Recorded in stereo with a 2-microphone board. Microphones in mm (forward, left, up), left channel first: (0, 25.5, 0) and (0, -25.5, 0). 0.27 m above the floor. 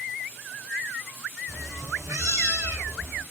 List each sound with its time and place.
1.5 s a cat meowing: 75° right (ahead or behind), 0.8 m